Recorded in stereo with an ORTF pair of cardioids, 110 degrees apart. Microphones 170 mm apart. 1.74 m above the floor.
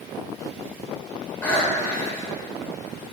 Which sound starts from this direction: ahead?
Breathing, at 1.4 s.